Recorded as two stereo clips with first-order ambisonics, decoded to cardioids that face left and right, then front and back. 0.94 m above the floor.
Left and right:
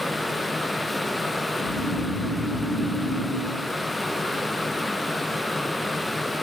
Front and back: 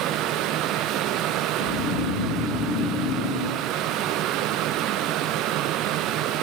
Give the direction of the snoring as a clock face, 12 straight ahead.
11 o'clock.